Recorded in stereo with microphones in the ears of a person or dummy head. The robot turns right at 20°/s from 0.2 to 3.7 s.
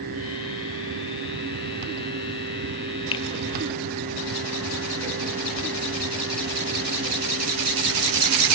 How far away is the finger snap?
About 0.7 m.